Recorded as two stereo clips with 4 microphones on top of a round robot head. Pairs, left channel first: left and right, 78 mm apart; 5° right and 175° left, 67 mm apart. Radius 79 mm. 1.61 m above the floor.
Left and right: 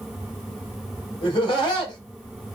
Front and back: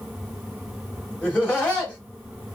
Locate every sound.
1.2 s laughter: 65° left, 2.5 m